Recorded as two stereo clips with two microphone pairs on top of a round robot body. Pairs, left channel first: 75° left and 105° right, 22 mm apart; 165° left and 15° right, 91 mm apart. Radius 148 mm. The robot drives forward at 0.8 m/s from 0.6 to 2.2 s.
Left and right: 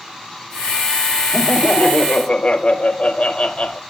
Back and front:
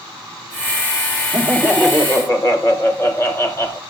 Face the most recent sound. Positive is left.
turn(degrees=105)